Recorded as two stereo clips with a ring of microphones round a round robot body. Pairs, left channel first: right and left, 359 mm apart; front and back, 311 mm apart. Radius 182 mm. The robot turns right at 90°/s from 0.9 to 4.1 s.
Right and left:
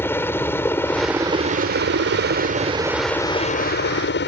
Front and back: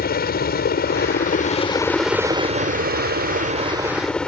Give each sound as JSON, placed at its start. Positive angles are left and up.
{"t": 0.0, "sound": "a helicopter", "azimuth_deg": -15}